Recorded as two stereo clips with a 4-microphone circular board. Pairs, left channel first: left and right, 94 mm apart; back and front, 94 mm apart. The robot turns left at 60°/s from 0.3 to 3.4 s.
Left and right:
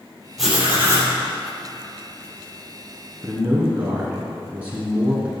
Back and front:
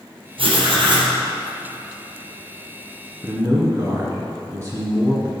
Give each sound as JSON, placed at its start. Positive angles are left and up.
{"t": 0.4, "sound": "writing", "azimuth_deg": 0, "distance_m": 3.0}
{"t": 3.2, "sound": "a man speaking", "azimuth_deg": -15, "distance_m": 1.5}